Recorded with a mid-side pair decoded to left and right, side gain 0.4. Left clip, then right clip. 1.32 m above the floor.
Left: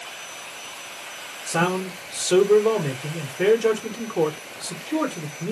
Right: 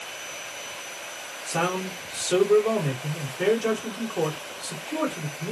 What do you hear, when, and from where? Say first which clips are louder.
1.5 s a man speaking: left 3 dB; 50° left, 1.4 m